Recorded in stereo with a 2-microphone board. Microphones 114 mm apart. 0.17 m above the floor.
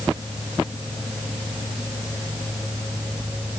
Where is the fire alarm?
No fire alarm in this recording.